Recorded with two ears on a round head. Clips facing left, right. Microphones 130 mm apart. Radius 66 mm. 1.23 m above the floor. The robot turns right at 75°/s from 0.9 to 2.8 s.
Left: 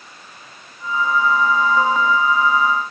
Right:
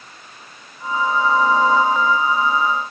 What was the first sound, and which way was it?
Only background noise.